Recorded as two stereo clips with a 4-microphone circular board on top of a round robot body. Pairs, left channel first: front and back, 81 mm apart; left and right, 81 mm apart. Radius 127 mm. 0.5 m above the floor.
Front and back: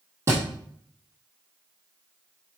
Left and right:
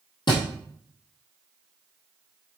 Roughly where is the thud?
Behind left.